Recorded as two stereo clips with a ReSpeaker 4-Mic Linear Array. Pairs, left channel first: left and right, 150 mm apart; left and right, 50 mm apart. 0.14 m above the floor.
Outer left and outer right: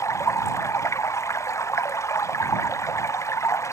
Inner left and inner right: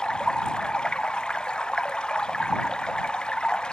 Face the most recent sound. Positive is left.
turn(degrees=20)  # may be behind; listen again after turning